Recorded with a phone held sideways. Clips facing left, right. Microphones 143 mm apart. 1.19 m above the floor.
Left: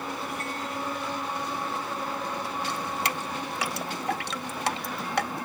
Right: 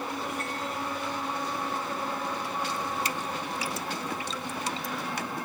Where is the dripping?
75° left (ahead or behind).